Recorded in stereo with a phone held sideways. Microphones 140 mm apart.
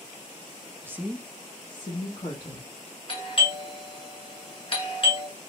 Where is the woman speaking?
15° right (ahead or behind), 0.8 m; by 2.7 s 40° left (ahead or behind), 1.5 m.